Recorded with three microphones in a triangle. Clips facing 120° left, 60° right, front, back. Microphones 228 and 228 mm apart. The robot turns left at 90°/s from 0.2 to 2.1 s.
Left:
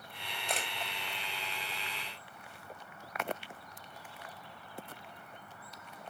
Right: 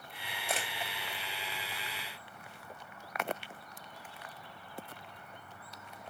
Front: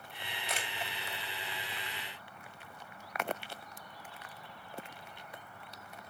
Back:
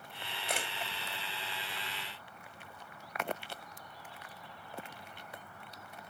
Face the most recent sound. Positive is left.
turn(degrees=75)